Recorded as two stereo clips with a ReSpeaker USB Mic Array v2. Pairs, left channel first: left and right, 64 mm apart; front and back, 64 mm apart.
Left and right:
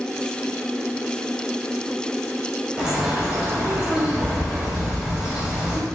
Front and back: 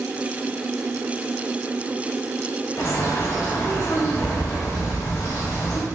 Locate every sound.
2.8 s a bird: 15° right, 1.5 m